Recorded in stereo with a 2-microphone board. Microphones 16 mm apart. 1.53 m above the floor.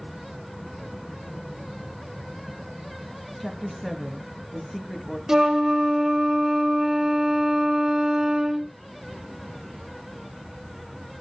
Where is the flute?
35° right (ahead or behind), 0.9 m.